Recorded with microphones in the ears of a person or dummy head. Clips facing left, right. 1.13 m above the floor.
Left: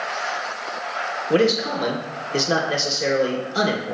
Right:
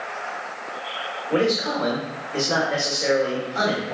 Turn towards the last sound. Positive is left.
turn(degrees=45)  # may be behind; listen again after turning